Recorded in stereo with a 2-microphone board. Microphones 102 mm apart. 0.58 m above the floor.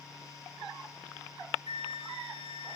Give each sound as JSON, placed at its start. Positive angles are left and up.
{"t": 1.7, "sound": "a flute", "side_deg": -70, "distance_m": 1.3}